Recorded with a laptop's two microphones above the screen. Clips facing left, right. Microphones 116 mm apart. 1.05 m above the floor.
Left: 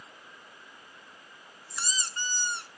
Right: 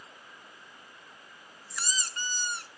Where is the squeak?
25° left (ahead or behind), 1.1 m.